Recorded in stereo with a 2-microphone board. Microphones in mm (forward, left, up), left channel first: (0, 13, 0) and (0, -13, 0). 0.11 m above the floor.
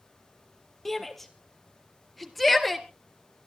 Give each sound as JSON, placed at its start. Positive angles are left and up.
{"t": 0.8, "sound": "a shout", "side_deg": 5, "distance_m": 3.0}